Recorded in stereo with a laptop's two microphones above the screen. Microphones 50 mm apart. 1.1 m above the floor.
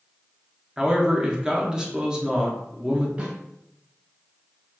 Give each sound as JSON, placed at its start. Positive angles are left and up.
{"t": 0.8, "sound": "a man speaking", "side_deg": -10, "distance_m": 0.6}
{"t": 3.2, "sound": "a snare drum", "side_deg": -25, "distance_m": 1.6}